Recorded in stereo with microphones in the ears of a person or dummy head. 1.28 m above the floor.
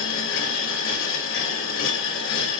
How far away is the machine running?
About 3 m.